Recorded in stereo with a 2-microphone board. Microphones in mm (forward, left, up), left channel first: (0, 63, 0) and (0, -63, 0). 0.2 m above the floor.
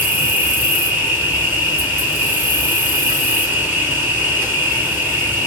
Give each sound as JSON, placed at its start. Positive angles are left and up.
{"t": 0.0, "sound": "an insect", "side_deg": -15, "distance_m": 1.1}